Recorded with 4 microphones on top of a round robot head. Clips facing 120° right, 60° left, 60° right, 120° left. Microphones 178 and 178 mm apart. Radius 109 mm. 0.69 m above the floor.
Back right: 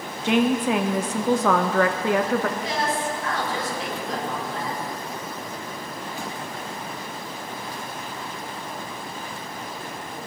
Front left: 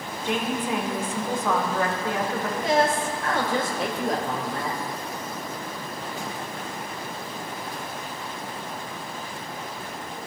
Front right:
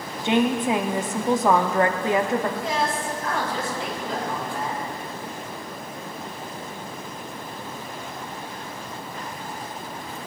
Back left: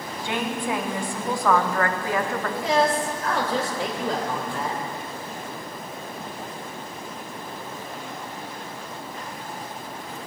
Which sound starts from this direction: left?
A woman speaking, at 2.6 s.